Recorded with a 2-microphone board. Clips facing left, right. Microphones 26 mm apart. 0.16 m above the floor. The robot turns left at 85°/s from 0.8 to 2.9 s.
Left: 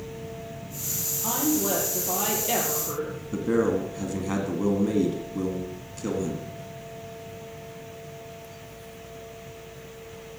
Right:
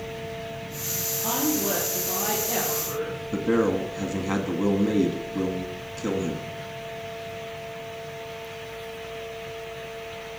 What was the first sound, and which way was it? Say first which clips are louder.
A woman speaking: even; 145° right.